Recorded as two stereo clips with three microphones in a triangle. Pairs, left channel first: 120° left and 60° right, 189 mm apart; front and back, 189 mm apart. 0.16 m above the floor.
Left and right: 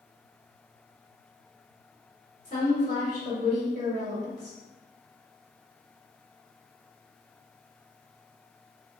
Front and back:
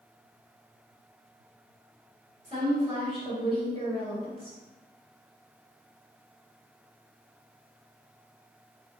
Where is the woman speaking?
140° left, 1.8 m.